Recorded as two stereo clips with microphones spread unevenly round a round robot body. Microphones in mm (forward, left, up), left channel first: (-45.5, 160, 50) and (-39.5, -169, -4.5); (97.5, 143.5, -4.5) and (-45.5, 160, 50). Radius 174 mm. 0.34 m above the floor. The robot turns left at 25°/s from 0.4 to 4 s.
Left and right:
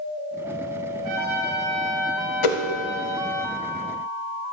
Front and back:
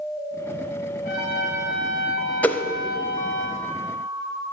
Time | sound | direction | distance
1.0 | a trumpet | 45° right | 3.5 m
2.4 | a whoosh | 65° left | 1.0 m